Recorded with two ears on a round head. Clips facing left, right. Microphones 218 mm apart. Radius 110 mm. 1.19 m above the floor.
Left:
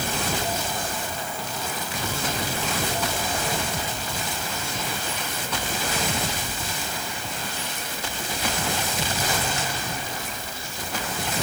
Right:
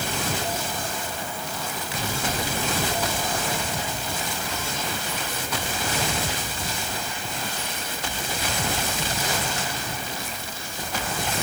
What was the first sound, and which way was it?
Only background noise.